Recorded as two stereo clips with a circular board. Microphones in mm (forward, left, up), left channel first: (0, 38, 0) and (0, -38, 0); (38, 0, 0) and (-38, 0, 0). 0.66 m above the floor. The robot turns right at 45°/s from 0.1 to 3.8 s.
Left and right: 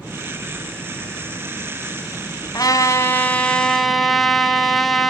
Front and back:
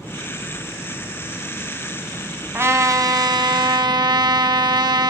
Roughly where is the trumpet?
Behind left.